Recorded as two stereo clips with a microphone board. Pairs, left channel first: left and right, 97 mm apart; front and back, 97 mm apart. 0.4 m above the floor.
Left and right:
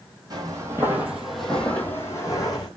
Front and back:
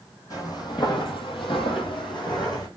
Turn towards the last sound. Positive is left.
turn(degrees=45)